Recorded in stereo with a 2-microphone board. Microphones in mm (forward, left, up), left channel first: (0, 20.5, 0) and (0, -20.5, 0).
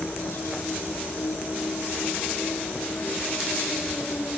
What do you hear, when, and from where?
0.0 s an insect: 70° left (ahead or behind), 2 m